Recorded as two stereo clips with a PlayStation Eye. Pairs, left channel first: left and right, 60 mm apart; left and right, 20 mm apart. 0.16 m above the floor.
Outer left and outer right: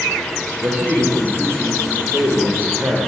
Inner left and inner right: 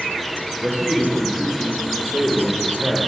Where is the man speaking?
35° right (ahead or behind), 10 m.